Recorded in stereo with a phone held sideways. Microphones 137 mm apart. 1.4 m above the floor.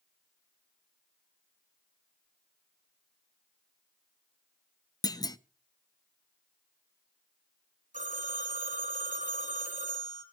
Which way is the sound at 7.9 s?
70° right (ahead or behind).